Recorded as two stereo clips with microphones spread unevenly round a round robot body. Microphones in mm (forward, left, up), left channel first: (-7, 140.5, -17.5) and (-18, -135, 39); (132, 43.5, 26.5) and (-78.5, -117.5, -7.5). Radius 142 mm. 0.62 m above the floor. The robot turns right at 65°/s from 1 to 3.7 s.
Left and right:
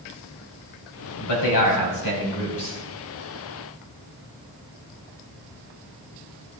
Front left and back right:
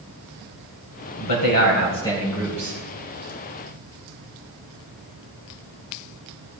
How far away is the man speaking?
About 3.5 m.